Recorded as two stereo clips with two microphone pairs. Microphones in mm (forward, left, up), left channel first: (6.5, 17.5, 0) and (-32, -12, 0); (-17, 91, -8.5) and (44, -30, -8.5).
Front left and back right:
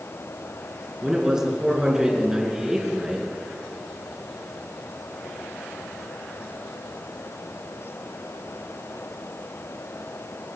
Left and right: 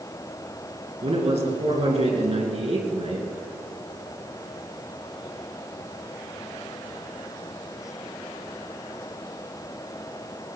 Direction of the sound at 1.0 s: 70° right.